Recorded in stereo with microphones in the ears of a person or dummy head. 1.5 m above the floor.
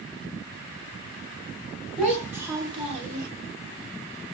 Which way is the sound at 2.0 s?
5° right (ahead or behind).